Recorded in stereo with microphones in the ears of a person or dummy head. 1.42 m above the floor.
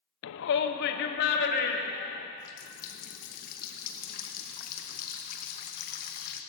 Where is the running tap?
45° left (ahead or behind), 1.0 m.